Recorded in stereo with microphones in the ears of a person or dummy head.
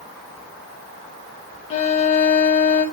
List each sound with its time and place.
1.7 s a violin: 30° left (ahead or behind), 1.1 m